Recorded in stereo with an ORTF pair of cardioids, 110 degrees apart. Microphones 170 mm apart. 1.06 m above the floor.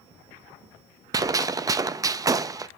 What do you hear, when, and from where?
1.1 s a gunshot: 20° right, 0.5 m